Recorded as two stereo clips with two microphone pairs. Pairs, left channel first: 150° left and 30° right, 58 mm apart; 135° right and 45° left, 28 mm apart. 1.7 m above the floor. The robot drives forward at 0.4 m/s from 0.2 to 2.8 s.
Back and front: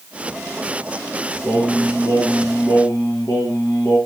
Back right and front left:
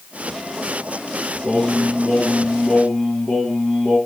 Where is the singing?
Straight behind, 5.5 m.